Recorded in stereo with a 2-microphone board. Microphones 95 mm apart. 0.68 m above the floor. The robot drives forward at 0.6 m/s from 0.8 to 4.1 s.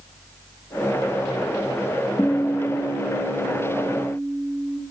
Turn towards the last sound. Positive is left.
turn(degrees=35)  # may be behind; listen again after turning